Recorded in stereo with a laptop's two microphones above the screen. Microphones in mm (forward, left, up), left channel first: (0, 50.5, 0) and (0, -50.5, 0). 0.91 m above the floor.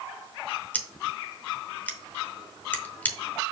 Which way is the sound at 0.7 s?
15° left (ahead or behind).